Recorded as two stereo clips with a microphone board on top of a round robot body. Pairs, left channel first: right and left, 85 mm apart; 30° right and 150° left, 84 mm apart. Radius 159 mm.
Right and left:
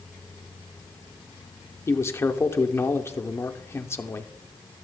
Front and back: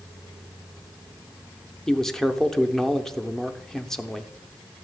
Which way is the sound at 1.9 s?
110° right.